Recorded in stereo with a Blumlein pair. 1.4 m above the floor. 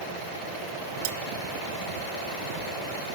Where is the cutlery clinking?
50° right.